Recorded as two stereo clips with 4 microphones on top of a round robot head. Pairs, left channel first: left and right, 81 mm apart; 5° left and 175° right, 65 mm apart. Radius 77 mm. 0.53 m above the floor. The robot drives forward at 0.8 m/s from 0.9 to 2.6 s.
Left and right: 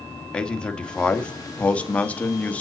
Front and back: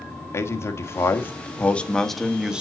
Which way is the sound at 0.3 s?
20° left.